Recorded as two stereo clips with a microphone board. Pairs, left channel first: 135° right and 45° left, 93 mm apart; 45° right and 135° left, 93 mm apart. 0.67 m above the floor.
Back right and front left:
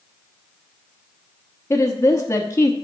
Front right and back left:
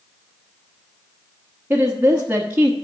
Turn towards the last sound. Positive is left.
turn(degrees=-170)